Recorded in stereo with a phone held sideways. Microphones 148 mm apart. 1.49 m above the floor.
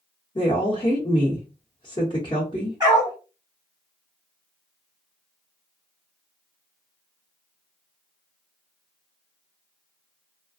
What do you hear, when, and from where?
0.3 s a woman speaking: 35° left (ahead or behind), 0.9 m
2.8 s a dog barking: 25° right (ahead or behind), 1.7 m